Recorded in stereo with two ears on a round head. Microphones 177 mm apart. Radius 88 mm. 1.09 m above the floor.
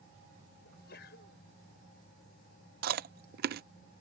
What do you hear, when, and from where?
0.7 s a sneeze: 60° left (ahead or behind)
2.8 s chewing: 50° right (ahead or behind)